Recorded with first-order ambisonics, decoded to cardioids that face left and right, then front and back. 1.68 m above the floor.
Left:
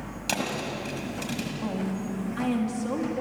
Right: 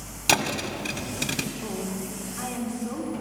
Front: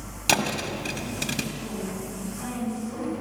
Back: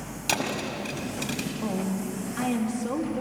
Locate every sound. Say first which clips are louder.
0.3 s a thud: right 6 dB, front 4 dB; 60° right, 1.7 m
1.6 s a woman speaking: left 1 dB, back 3 dB; 145° left, 3.5 m